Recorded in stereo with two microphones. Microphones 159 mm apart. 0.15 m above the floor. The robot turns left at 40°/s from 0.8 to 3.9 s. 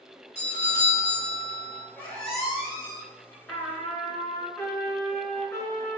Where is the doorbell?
20° left (ahead or behind), 1.9 m; by 1.9 s 10° left (ahead or behind), 1.9 m.